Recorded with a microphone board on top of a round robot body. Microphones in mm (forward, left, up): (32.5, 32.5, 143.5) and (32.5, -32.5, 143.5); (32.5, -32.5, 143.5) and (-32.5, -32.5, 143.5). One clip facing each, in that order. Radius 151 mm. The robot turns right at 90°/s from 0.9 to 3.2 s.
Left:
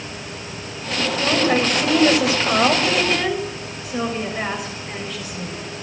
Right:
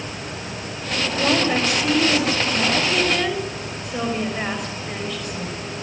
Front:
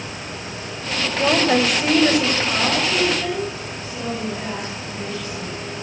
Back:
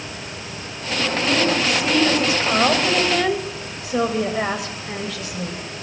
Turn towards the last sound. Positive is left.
turn(degrees=175)